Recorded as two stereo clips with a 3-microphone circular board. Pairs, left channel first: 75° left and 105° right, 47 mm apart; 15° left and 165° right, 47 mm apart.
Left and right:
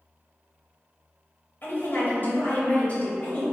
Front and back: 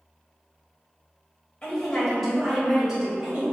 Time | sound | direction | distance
1.6 | a woman speaking | 80° left | 1.4 m